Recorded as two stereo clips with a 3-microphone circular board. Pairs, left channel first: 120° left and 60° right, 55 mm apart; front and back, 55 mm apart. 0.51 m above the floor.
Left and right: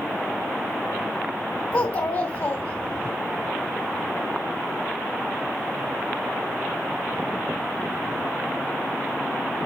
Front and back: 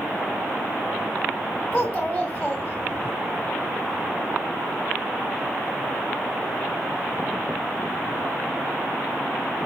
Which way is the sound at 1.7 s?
85° left.